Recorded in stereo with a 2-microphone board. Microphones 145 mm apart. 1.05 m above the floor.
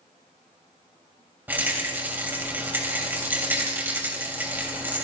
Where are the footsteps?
No footsteps in this recording.